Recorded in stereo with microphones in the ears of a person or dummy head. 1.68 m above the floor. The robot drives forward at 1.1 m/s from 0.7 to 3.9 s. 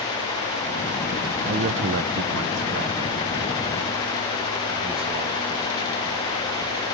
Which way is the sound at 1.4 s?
45° right (ahead or behind).